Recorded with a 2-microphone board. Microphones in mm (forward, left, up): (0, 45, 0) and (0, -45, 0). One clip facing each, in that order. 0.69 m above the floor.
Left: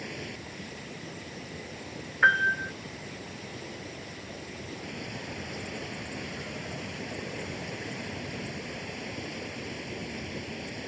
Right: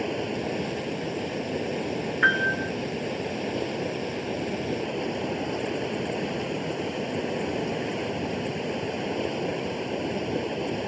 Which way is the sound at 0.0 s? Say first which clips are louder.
Right 12 dB; 75° right (ahead or behind).